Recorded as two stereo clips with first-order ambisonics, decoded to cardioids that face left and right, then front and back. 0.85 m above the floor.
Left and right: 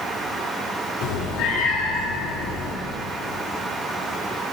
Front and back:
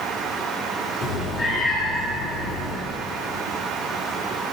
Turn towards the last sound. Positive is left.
turn(degrees=60)